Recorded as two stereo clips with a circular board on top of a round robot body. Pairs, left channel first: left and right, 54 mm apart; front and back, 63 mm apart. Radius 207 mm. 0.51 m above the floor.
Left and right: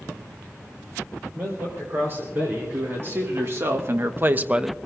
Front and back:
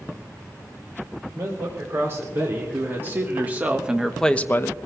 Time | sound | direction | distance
1.4 | a man speaking | 135° right | 4 m